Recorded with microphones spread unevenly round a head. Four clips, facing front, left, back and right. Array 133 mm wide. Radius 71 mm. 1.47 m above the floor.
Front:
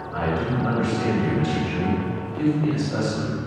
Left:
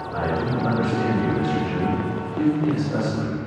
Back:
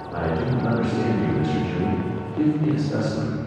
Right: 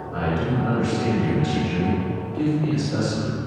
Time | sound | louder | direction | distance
0.1 | a man speaking | even, even | 170° left | 2 m